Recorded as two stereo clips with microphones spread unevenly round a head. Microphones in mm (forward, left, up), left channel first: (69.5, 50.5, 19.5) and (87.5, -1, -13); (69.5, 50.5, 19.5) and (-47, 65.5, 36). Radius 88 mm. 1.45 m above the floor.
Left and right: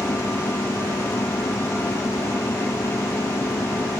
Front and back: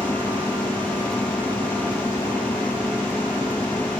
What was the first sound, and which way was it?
A machine running, 70° left.